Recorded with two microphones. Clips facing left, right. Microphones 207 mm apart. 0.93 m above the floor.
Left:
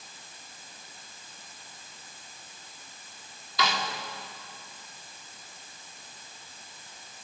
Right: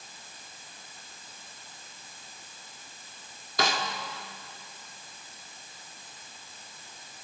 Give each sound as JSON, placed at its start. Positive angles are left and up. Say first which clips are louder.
{"t": 3.6, "sound": "a snare drum", "louder": "right 1 dB", "side_deg": -45, "distance_m": 2.0}